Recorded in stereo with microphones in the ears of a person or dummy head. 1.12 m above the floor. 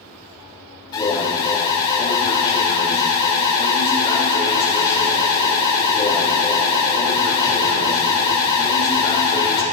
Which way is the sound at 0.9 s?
30° left (ahead or behind).